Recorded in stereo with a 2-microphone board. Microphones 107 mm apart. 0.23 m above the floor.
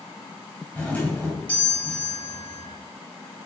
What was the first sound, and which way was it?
A doorbell, 15° left (ahead or behind).